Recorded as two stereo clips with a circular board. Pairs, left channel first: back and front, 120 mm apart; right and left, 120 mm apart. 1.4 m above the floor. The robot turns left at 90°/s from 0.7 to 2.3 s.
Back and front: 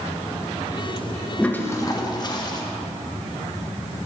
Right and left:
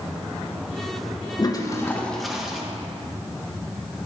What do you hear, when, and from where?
1.4 s a toilet flushing: 100° right, 0.6 m; by 2.6 s 175° left, 0.6 m